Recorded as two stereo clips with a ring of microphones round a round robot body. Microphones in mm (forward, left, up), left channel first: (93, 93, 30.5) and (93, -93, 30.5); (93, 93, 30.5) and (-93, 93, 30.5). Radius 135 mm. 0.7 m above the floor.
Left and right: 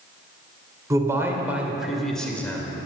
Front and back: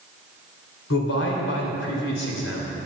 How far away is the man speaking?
About 3 m.